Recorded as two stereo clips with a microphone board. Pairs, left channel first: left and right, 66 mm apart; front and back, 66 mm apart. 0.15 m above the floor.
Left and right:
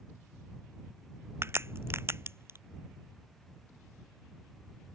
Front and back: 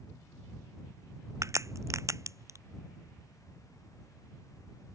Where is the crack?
140° right.